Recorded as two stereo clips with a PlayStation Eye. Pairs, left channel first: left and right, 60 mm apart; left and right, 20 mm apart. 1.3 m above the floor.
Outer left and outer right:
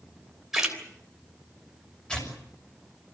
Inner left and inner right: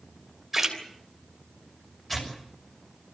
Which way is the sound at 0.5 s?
5° right (ahead or behind).